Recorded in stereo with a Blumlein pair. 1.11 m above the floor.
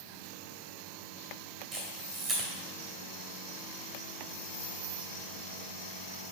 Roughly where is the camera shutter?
Ahead.